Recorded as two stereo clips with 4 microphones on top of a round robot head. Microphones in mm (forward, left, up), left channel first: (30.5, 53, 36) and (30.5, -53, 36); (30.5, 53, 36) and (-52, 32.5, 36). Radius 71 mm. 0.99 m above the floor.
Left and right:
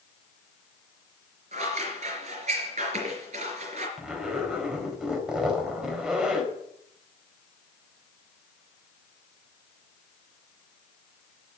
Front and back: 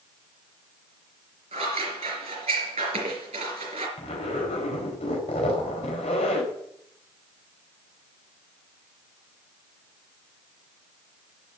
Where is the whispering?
No whispering in this recording.